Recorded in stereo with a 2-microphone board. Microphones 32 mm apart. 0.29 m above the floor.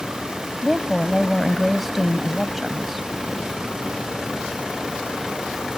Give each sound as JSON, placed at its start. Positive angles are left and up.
{"t": 0.6, "sound": "a woman speaking", "side_deg": -5}